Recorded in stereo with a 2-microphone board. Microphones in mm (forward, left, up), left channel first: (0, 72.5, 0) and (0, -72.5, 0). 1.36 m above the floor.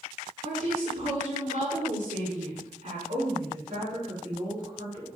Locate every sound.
0.4 s a woman speaking: 55° right (ahead or behind), 4.5 m
3.1 s a woman speaking: 85° right, 4.5 m